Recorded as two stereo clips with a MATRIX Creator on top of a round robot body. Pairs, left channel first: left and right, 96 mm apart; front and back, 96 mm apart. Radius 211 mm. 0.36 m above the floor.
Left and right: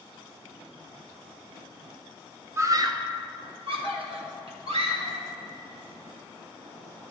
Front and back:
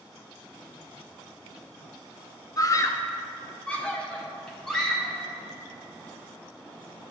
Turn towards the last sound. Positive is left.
turn(degrees=-85)